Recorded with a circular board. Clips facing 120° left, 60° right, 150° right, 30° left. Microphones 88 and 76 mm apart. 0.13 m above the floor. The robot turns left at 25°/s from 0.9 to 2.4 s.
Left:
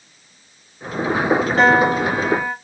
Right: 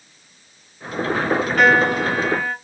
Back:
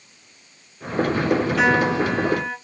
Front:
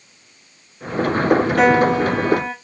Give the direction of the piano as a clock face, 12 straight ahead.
10 o'clock.